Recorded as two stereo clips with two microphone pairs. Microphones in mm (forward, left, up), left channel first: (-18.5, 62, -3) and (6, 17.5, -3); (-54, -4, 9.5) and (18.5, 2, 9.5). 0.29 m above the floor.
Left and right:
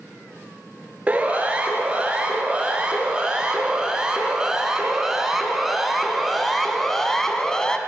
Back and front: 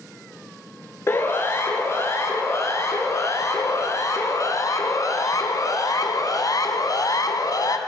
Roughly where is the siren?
Behind right.